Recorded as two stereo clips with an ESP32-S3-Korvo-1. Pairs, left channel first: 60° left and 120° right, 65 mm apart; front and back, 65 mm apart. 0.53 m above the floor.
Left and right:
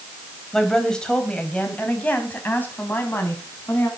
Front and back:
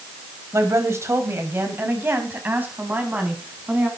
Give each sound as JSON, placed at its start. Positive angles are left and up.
{"t": 0.5, "sound": "a woman speaking", "azimuth_deg": 145, "distance_m": 3.5}